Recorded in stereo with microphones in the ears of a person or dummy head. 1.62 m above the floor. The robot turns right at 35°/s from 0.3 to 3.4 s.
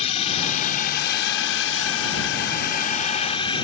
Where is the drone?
40° left; by 3.6 s 145° left.